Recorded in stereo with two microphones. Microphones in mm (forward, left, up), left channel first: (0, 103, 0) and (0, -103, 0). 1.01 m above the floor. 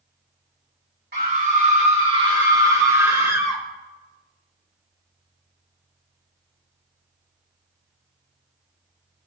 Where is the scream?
50° right (ahead or behind), 2.5 m; by 3.6 s 5° right (ahead or behind), 3.5 m.